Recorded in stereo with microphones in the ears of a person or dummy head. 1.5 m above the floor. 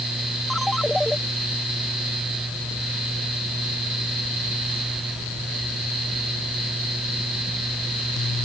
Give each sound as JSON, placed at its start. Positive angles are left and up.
{"t": 0.5, "sound": "a ringtone", "side_deg": 5}